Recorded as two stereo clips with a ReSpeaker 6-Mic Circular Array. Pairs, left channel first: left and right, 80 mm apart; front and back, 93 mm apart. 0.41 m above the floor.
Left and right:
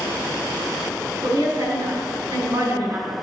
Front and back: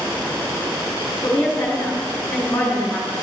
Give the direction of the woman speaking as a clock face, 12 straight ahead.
2 o'clock.